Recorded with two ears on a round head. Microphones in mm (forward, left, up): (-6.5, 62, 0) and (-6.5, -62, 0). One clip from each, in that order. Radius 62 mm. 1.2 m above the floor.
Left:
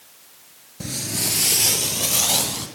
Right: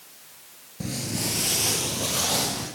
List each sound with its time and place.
0.8 s footsteps: 25° left (ahead or behind), 1.3 m; by 2.7 s 40° left (ahead or behind), 2.5 m